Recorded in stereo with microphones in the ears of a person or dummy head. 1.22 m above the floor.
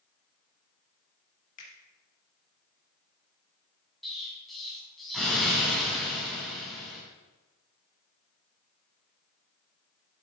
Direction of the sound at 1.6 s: 40° left (ahead or behind).